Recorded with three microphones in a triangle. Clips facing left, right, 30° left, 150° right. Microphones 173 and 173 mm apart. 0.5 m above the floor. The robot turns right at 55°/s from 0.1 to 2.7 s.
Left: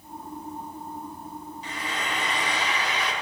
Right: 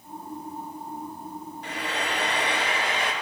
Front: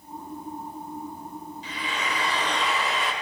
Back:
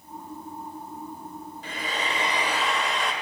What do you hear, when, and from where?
1.6 s frying: 115° right, 1.1 m; by 3.1 s 60° right, 1.1 m